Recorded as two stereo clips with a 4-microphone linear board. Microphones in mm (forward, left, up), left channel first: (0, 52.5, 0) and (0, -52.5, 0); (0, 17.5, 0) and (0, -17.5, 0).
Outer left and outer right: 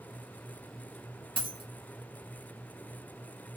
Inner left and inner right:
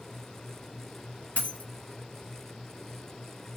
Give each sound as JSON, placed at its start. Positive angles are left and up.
{"t": 1.4, "sound": "a dropped coin", "side_deg": 55, "distance_m": 1.5}